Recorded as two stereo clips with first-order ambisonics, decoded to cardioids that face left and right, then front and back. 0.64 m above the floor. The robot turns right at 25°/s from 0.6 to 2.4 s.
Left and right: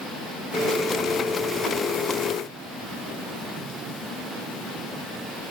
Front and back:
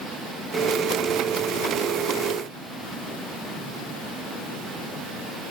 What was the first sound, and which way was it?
Only background noise.